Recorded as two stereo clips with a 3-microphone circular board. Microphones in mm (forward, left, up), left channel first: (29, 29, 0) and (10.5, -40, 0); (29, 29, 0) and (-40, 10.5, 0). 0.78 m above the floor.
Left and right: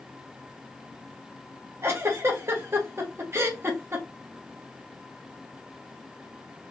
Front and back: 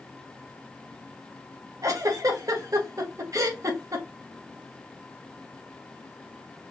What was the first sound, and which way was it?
A giggle, 145° right.